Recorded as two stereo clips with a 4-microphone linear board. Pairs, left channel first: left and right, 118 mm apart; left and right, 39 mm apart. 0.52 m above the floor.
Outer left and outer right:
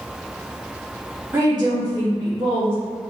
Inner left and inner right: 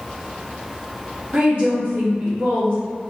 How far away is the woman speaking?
About 0.7 m.